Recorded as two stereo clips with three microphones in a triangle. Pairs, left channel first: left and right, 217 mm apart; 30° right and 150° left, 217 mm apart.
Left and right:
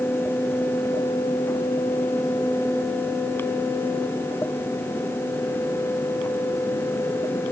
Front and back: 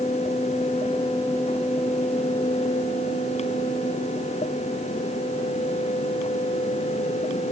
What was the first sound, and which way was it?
Only background noise.